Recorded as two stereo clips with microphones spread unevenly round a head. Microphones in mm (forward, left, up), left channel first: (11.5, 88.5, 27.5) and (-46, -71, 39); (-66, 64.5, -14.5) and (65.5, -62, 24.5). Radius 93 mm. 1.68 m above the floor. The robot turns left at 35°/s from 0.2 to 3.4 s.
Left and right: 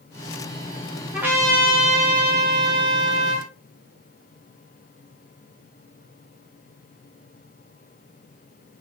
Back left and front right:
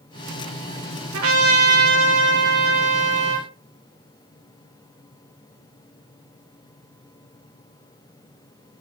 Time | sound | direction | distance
1.1 | a trumpet | 25° right | 5.5 m